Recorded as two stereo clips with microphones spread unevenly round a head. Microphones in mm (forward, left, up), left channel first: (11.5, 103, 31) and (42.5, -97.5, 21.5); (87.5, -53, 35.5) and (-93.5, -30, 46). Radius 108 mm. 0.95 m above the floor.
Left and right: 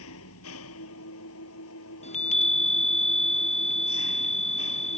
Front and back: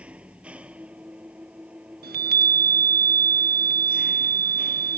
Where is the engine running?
90° left.